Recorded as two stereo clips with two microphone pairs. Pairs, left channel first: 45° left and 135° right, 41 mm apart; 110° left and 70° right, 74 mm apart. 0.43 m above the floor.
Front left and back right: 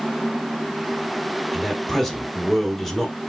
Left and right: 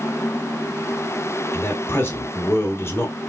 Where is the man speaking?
125° left, 0.9 m.